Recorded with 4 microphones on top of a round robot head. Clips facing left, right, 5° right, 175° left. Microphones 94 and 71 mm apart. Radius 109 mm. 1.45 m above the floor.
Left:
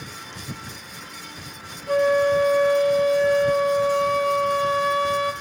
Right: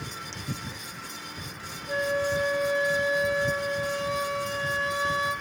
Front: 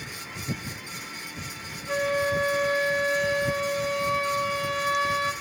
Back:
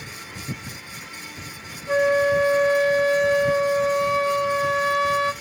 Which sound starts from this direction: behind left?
A flute, at 1.9 s.